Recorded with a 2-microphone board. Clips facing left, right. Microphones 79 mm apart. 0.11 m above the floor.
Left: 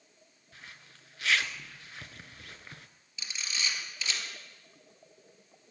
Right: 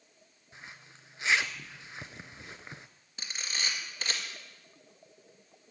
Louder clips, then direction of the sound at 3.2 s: Even; 50° right (ahead or behind).